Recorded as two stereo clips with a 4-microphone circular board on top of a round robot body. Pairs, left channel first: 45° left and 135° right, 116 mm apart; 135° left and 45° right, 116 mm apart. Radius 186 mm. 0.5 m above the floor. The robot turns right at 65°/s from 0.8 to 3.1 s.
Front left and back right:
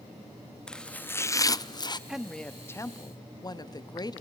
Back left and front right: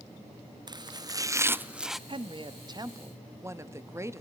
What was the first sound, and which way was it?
Chopping, 35° right.